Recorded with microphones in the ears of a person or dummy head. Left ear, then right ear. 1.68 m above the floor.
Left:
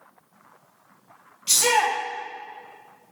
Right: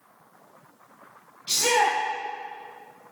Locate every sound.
1.5 s a shout: 45° left (ahead or behind), 1.6 m